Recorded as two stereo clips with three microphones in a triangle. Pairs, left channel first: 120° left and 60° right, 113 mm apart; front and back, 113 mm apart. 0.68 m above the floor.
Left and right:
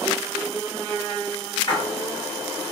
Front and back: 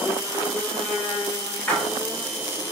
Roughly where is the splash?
Left.